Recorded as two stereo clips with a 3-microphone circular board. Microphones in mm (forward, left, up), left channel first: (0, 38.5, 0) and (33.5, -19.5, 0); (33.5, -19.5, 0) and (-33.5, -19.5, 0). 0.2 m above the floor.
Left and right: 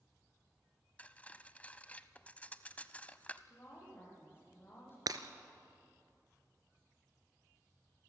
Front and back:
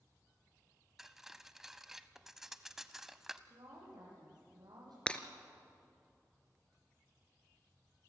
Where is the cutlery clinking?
105° left, 0.6 m.